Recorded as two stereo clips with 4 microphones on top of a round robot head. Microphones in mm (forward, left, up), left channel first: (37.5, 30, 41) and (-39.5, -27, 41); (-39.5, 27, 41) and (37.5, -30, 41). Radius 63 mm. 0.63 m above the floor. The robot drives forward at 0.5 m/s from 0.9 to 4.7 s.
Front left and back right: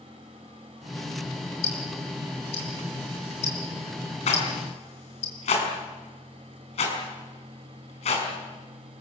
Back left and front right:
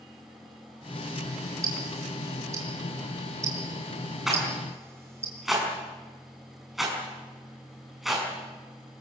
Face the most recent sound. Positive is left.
turn(degrees=50)